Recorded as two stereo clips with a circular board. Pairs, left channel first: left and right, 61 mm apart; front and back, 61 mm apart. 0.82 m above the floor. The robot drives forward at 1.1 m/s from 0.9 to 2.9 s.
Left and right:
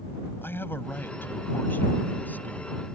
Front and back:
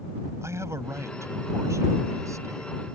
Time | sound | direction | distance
0.4 | a man speaking | 140° left | ?